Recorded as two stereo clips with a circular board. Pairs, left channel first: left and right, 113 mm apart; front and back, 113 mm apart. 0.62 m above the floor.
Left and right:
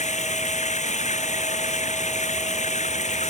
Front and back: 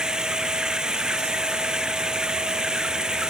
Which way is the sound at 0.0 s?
95° left.